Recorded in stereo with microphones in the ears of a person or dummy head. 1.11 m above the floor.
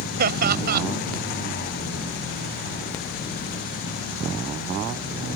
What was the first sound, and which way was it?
Laughter, 55° right (ahead or behind).